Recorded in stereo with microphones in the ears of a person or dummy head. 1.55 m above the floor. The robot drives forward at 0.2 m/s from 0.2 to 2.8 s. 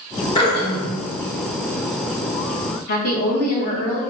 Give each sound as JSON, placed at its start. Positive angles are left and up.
{"t": 0.3, "sound": "throat clearing", "side_deg": 25, "distance_m": 1.2}
{"t": 2.9, "sound": "a woman speaking", "side_deg": 50, "distance_m": 1.3}